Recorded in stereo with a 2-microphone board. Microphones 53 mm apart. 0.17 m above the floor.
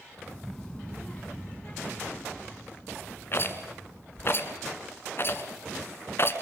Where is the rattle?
45° left (ahead or behind), 2.0 m.